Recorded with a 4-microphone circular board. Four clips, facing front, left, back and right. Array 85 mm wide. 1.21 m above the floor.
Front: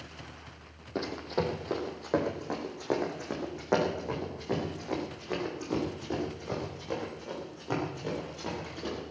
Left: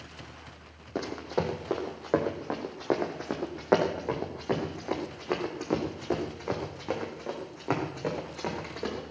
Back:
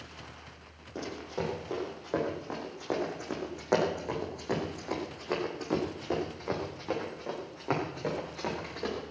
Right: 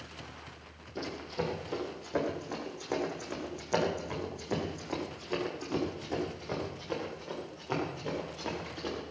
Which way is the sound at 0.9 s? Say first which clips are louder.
Left 5 dB, front 4 dB; 60° left.